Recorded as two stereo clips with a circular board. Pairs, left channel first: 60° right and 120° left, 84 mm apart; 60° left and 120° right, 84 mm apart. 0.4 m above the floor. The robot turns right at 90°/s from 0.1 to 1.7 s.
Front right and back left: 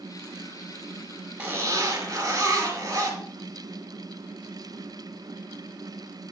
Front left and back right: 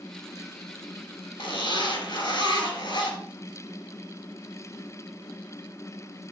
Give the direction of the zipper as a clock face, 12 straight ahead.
11 o'clock.